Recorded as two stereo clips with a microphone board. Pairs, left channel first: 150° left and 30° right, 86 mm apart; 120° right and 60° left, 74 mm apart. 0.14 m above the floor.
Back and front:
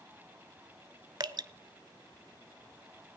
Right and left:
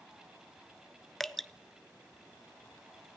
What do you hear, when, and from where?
1.2 s dripping: 35° right, 0.5 m